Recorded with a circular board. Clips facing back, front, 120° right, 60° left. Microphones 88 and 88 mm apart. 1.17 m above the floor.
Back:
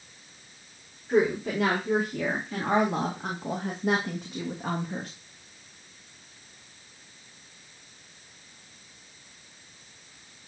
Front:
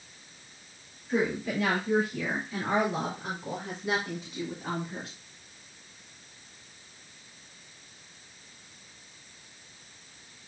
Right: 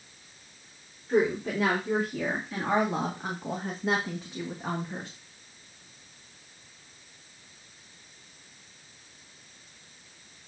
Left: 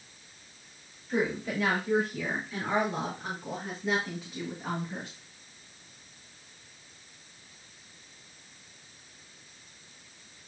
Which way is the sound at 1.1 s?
150° right.